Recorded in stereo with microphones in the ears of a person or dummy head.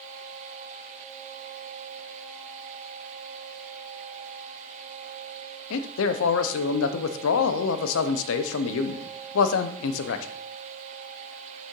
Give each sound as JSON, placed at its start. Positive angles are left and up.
{"t": 5.7, "sound": "a man speaking", "side_deg": 75, "distance_m": 0.6}